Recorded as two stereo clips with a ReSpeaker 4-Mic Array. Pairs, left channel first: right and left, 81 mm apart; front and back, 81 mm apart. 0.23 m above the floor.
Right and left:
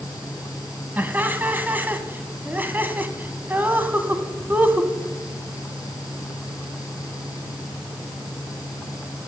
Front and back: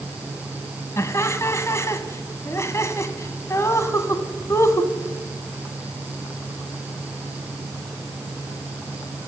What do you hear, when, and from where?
1.0 s laughter: 35° left, 1.9 m